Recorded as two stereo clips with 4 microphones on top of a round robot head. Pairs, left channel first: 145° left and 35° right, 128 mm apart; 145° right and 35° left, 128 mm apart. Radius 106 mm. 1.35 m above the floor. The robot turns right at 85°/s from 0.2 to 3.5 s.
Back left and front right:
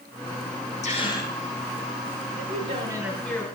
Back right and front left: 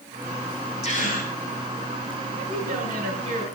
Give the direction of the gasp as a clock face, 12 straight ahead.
6 o'clock.